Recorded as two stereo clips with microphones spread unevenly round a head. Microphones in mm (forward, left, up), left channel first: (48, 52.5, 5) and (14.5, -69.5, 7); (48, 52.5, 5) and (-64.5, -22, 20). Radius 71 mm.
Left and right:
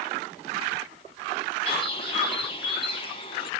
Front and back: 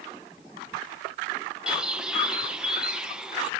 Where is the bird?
130° left, 1.3 m.